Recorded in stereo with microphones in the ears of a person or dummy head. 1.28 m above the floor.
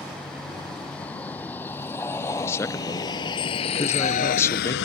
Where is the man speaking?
10° left (ahead or behind).